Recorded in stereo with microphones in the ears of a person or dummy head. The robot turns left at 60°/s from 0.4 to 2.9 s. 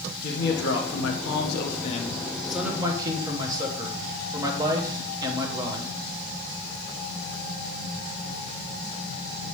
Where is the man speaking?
125° left, 1.4 m; by 5.9 s 25° right, 1.4 m.